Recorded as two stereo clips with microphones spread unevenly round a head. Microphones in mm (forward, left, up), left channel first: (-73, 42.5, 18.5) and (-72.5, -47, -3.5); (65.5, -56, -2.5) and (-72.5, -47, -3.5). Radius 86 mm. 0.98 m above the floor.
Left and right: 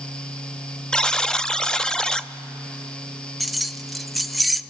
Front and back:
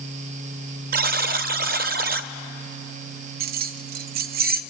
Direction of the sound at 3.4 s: 175° left.